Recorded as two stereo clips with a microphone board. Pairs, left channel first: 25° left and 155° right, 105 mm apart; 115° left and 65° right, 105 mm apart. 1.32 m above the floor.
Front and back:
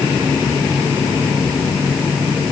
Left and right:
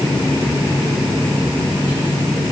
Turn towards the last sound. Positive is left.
No sound to turn to.